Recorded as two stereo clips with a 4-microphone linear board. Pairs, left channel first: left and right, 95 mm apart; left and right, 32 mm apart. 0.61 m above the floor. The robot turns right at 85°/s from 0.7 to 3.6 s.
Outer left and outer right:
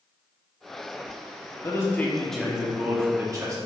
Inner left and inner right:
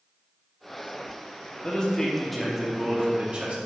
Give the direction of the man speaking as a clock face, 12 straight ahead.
8 o'clock.